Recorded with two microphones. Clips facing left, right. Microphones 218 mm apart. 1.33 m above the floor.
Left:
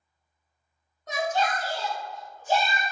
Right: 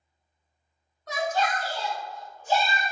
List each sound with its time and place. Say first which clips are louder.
1.1 s a shout: even; 20° left (ahead or behind), 0.7 m; by 2.9 s 45° left (ahead or behind), 1.0 m